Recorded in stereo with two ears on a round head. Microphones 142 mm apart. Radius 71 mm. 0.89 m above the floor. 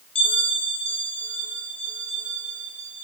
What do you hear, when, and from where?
0.1 s a bell: 35° left (ahead or behind), 7 m